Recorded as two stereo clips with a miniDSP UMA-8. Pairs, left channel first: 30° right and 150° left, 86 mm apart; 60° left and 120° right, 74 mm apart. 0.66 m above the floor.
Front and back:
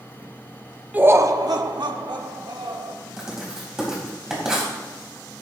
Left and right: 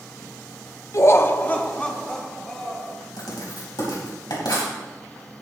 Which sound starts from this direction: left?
Laughter, at 0.9 s.